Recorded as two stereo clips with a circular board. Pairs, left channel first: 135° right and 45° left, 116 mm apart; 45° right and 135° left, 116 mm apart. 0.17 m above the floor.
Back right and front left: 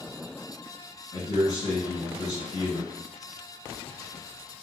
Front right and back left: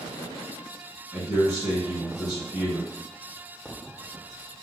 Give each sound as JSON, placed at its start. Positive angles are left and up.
{"t": 1.1, "sound": "a man speaking", "azimuth_deg": -135, "distance_m": 1.9}